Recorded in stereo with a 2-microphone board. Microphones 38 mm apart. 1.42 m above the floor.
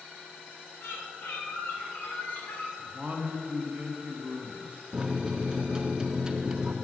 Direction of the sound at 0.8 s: 65° left (ahead or behind).